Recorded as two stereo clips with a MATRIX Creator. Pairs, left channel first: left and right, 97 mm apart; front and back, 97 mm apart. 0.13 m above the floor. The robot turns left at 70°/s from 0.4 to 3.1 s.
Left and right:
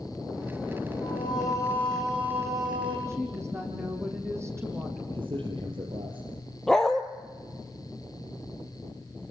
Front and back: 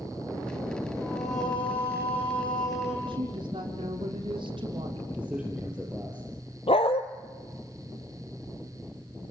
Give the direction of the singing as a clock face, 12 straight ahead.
10 o'clock.